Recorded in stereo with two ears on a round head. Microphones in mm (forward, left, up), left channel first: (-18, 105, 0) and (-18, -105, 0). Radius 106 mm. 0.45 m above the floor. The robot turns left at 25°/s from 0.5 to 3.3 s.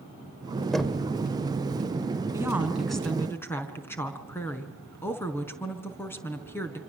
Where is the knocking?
Centre (ahead or behind), 1.4 m; by 1.1 s 5° right (ahead or behind), 1.4 m.